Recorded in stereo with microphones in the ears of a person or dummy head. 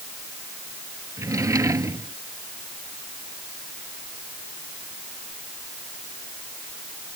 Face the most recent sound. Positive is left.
turn(degrees=-10)  # may be behind; listen again after turning